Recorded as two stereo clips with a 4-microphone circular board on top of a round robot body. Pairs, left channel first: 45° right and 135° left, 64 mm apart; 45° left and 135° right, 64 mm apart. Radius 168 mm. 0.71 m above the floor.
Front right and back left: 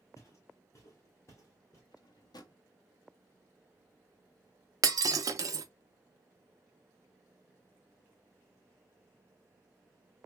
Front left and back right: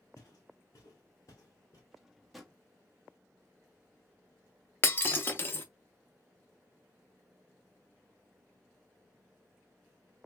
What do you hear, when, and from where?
0.2 s footsteps: straight ahead, 0.9 m
1.9 s a drawer: 50° right, 0.8 m
4.8 s breaking glass: 105° left, 0.6 m